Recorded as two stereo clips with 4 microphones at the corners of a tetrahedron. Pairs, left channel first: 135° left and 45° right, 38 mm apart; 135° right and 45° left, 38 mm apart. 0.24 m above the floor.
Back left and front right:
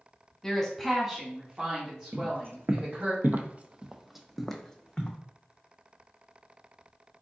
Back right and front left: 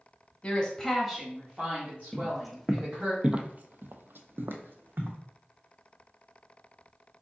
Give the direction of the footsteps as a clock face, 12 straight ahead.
2 o'clock.